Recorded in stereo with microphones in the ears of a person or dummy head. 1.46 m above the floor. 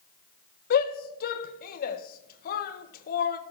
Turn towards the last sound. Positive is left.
turn(degrees=60)  # may be behind; listen again after turning